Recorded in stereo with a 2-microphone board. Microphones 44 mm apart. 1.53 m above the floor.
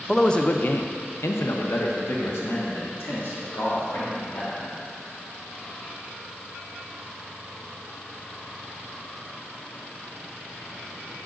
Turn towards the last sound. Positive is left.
turn(degrees=65)  # may be behind; listen again after turning